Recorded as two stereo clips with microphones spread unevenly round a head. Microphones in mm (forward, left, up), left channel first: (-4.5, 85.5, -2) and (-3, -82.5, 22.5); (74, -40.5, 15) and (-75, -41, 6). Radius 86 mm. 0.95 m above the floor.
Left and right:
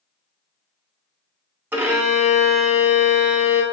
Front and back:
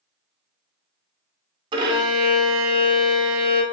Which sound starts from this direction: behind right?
A violin, at 1.7 s.